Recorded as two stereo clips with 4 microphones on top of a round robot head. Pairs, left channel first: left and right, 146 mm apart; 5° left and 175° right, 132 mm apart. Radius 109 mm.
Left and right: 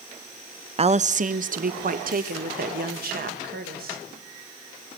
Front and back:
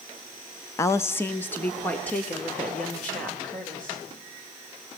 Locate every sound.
0.8 s a woman speaking: 55° right, 0.7 m; by 4.0 s 75° right, 3.5 m